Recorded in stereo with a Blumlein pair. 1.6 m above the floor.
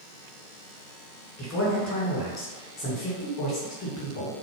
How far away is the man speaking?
About 1.8 m.